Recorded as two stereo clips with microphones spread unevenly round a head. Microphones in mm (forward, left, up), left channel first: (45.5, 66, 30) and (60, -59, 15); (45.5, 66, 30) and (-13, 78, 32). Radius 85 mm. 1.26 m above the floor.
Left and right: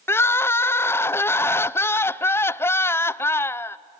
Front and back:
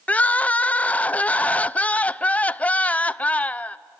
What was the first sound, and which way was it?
Crying, 30° left.